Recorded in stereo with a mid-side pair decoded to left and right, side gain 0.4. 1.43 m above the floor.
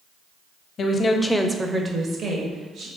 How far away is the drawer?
No drawer in this recording.